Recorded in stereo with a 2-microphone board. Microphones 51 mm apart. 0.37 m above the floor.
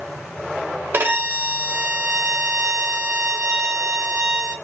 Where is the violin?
40° right (ahead or behind), 0.9 m.